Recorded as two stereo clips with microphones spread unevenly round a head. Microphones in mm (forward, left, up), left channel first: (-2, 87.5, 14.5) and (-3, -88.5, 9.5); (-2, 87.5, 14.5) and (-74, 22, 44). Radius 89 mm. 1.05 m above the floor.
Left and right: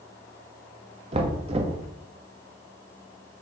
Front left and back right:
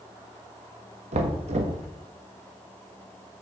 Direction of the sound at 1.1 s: 145° right.